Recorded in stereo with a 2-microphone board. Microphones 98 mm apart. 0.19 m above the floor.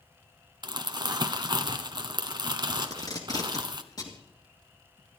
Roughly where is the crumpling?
Right.